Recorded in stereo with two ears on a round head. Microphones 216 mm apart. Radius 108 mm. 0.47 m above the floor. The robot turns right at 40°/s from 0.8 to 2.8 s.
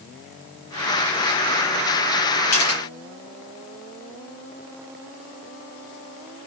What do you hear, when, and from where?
2.5 s a camera shutter: 75° left (ahead or behind), 7.5 m; by 2.8 s 65° left (ahead or behind), 7.5 m